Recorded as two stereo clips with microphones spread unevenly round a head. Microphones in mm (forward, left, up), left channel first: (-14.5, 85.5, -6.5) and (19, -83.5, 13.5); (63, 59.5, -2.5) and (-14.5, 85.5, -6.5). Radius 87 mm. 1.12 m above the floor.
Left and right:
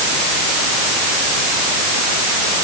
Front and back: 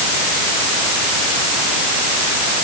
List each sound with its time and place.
Only background noise.